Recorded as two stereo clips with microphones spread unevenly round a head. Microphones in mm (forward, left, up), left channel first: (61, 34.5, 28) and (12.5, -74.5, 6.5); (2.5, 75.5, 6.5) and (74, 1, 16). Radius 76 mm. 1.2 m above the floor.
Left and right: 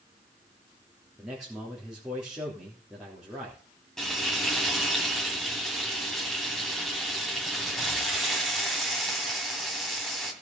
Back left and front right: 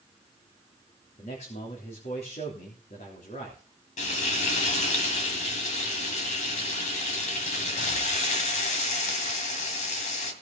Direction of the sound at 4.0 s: 150° left.